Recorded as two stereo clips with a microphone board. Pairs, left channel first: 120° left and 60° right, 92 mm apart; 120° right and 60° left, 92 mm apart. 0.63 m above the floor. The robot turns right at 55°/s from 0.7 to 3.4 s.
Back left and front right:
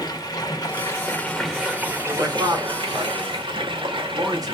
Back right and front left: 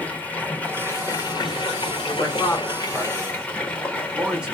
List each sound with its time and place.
0.0 s running water: 165° left, 1.1 m; by 4.5 s 45° right, 1.1 m
2.1 s a man speaking: 95° right, 1.8 m; by 4.5 s 20° right, 1.8 m